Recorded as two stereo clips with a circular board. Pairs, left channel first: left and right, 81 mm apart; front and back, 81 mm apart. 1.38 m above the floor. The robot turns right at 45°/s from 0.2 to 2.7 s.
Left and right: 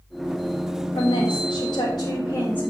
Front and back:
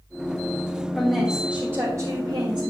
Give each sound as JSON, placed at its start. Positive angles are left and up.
{"t": 0.9, "sound": "a woman speaking", "azimuth_deg": 80, "distance_m": 1.4}